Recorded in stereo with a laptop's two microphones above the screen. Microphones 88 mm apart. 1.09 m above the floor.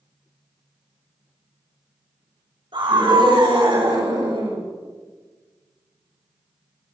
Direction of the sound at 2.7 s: 65° right (ahead or behind).